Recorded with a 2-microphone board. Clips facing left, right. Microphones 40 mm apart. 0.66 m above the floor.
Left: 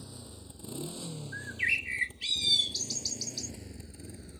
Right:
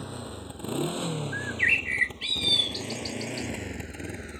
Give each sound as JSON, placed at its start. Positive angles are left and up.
{"t": 0.0, "sound": "a motorcycle", "side_deg": -60}
{"t": 1.3, "sound": "a bird", "side_deg": -30}